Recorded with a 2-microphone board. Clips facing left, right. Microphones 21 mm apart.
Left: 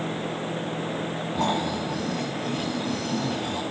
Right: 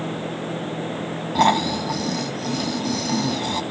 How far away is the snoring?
About 2 m.